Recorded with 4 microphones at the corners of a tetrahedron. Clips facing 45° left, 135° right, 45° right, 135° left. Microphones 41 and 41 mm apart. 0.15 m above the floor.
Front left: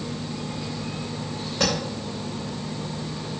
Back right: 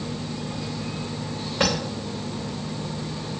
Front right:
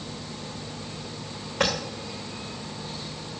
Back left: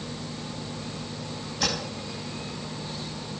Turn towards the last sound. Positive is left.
turn(degrees=-70)